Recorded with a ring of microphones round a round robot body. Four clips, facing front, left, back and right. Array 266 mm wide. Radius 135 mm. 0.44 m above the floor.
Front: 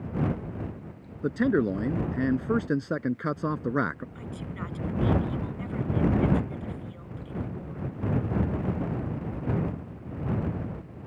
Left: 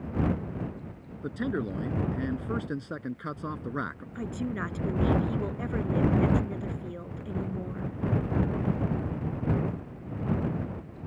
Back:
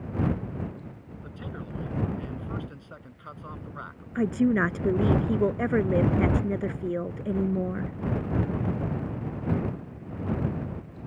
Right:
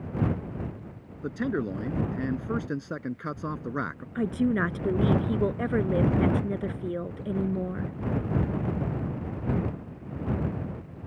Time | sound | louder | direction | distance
1.2 | a man speaking | right 2 dB, front 17 dB | 5° right | ?
4.2 | a woman speaking | right 8 dB, back 15 dB | 150° right | ?